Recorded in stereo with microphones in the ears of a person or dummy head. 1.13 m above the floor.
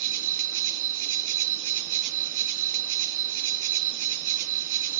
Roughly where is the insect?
Right.